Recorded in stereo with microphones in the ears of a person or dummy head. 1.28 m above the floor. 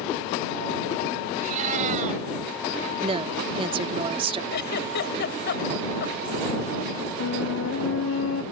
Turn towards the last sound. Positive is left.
turn(degrees=80)